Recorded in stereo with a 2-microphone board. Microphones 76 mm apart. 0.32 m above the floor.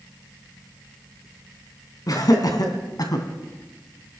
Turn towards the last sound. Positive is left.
turn(degrees=60)  # may be behind; listen again after turning